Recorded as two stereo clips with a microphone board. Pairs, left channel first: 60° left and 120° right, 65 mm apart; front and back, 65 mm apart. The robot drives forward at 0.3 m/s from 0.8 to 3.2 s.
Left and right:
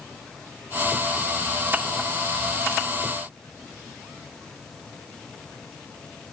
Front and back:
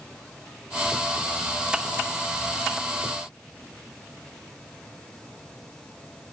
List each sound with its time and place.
Only background noise.